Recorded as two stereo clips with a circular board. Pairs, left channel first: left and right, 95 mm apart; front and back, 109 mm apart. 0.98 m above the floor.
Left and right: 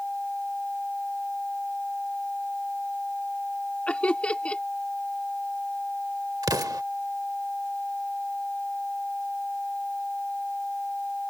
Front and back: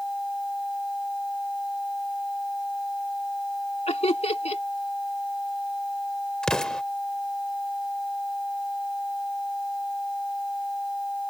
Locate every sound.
3.9 s laughter: 15° left
6.4 s an explosion: 80° right